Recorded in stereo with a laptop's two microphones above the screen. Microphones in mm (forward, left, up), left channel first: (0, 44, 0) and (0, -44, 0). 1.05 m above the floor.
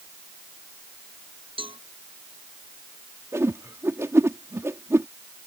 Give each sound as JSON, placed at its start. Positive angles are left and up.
{"t": 1.6, "sound": "a cowbell", "side_deg": -85}
{"t": 3.3, "sound": "a whoosh", "side_deg": -30}